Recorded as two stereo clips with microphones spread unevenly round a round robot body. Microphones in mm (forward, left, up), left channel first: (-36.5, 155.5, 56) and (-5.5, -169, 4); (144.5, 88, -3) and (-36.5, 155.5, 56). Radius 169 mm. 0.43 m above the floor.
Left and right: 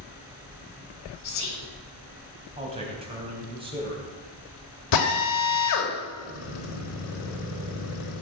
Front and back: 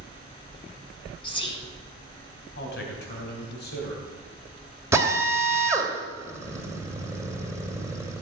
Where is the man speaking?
15° right, 3 m.